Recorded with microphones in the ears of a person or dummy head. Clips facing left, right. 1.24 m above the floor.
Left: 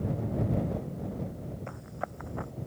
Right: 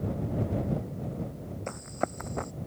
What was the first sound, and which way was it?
Running footsteps, 50° right (ahead or behind).